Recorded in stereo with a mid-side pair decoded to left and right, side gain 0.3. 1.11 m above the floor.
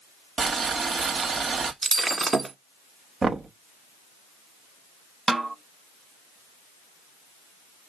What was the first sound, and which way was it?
Boiling, 65° right.